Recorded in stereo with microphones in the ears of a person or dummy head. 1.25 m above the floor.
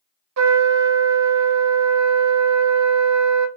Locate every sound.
0.4 s a trumpet: 90° right, 0.7 m